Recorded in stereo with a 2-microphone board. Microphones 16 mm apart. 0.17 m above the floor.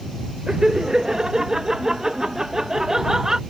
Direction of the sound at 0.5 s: 40° right (ahead or behind).